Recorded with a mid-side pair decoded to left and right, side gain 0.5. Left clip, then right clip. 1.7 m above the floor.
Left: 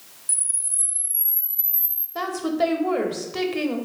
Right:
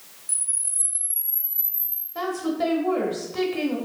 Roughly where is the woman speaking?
Ahead left.